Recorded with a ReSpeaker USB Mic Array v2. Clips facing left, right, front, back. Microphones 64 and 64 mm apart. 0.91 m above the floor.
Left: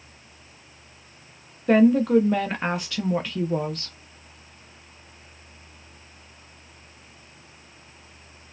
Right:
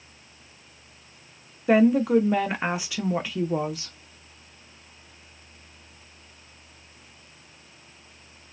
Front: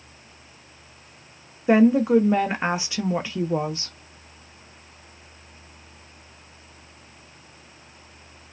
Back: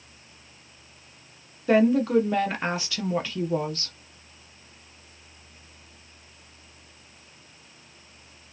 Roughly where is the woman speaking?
Ahead.